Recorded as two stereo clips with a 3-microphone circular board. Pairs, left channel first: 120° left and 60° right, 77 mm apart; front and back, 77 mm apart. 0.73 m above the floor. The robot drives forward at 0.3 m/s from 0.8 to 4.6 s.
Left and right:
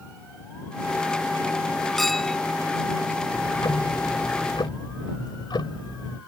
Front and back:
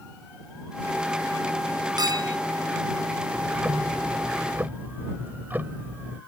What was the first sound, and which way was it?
A clink, 155° right.